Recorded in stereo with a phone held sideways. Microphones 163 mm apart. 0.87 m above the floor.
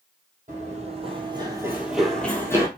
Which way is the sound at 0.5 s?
50° right (ahead or behind).